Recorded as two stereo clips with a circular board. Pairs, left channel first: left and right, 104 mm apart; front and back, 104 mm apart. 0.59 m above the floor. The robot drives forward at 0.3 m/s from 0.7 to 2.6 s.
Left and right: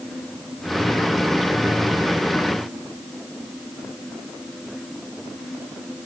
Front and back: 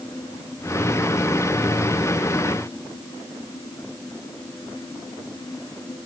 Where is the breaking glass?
No breaking glass in this recording.